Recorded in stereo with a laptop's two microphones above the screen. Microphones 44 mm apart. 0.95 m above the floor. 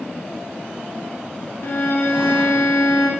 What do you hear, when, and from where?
1.6 s a violin: 60° left (ahead or behind), 0.5 m